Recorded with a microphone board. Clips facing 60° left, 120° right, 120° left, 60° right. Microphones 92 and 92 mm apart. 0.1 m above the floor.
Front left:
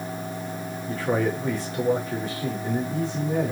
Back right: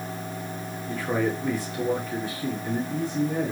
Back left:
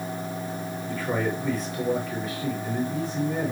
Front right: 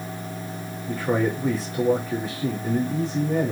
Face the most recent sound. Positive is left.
turn(degrees=0)